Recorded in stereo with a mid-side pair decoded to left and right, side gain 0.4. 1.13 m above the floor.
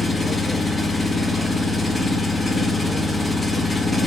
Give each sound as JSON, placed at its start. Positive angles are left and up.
{"t": 0.0, "sound": "an engine running", "azimuth_deg": 20, "distance_m": 0.9}